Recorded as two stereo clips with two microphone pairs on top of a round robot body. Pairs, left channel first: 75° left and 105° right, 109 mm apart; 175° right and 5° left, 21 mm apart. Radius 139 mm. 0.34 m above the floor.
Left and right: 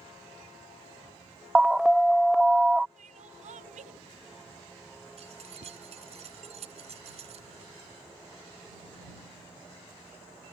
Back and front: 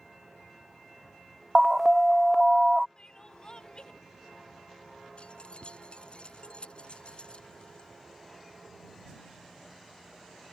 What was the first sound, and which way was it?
An alarm, 25° left.